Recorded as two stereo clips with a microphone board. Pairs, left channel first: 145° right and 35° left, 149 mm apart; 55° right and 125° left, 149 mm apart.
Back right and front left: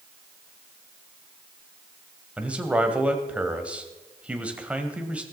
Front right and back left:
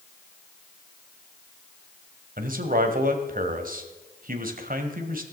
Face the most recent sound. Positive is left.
turn(degrees=115)